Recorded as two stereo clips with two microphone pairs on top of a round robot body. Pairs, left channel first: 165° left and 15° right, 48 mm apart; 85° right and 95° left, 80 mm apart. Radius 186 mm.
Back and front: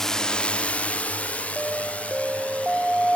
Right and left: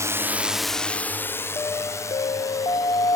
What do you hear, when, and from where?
0.0 s a drone: 100° left; by 3.1 s 135° right
1.6 s an alarm: 95° right